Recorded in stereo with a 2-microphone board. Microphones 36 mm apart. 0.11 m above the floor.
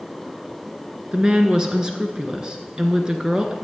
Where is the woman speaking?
25° right (ahead or behind), 1.2 m.